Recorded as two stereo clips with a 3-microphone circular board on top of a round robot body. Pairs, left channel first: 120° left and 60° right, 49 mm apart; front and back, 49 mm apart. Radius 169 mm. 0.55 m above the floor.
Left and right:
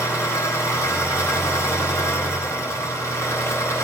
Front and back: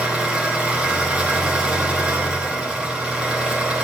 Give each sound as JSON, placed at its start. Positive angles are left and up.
{"t": 0.0, "sound": "an engine running", "azimuth_deg": 110, "distance_m": 3.0}